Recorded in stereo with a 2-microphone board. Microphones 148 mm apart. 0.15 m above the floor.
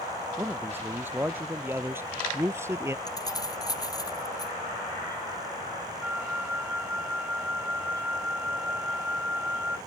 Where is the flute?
10° right (ahead or behind).